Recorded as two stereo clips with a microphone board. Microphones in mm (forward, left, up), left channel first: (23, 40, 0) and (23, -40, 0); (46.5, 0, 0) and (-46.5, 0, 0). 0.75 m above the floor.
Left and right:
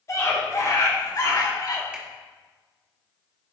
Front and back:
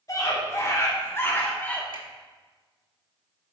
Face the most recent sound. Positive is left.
turn(degrees=-160)